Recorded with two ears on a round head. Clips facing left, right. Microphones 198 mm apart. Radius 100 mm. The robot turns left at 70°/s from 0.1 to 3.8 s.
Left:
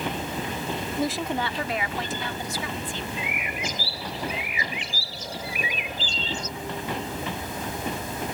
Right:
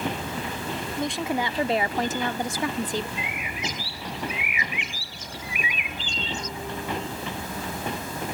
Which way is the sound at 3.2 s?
80° left.